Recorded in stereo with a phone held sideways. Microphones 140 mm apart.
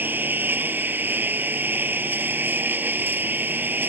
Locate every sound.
0.0 s a lawn mower: 15° right (ahead or behind)